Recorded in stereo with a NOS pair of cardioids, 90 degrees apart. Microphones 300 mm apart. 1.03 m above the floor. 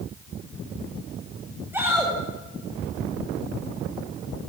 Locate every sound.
1.7 s a shout: 5° right, 7.5 m